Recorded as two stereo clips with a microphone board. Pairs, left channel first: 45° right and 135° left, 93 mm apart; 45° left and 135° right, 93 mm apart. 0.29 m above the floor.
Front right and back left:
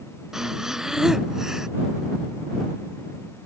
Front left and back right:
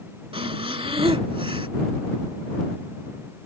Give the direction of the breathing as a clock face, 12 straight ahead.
5 o'clock.